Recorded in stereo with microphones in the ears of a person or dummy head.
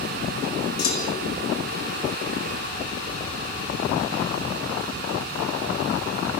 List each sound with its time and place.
0.8 s a clunk: 55° left (ahead or behind), 3.5 m